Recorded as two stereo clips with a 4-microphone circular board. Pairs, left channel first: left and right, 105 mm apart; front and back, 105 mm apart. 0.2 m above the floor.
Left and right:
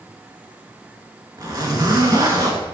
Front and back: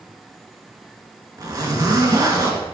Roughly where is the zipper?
Behind right.